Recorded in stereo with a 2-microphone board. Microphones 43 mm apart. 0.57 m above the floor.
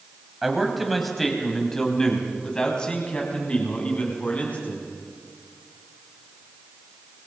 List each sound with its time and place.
0.4 s a man speaking: 5° right (ahead or behind), 4 m; by 4.9 s 40° left (ahead or behind), 5.5 m